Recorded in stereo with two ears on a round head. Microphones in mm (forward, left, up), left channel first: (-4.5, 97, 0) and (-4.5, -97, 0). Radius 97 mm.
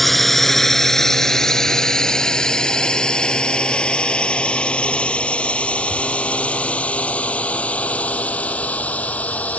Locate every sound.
0.0 s a drone: centre (ahead or behind); by 9.6 s 5° left (ahead or behind)